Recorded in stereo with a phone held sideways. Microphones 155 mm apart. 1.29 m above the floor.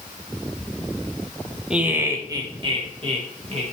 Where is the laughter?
5° right (ahead or behind), 0.9 m; by 3.6 s 45° right (ahead or behind), 2 m.